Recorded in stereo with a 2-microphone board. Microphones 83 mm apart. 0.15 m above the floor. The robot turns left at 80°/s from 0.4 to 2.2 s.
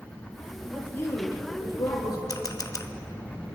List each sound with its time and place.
0.7 s a woman speaking: 175° left, 5.5 m; by 2.2 s 55° left, 5.5 m
2.3 s a camera shutter: 50° left (ahead or behind), 0.9 m